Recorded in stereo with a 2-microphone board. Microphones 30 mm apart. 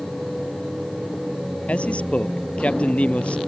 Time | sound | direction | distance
1.7 | a man speaking | 50° left (ahead or behind) | ?